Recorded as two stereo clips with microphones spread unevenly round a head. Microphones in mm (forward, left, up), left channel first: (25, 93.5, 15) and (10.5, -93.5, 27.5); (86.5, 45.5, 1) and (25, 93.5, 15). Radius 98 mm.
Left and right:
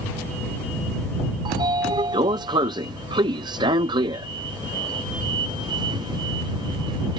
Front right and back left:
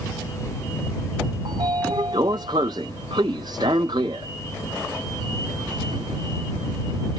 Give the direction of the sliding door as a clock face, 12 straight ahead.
5 o'clock.